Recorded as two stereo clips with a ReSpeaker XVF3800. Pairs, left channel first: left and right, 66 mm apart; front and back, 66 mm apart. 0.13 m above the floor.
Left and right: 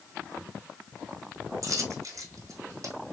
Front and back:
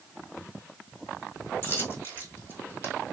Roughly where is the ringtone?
I don't hear a ringtone.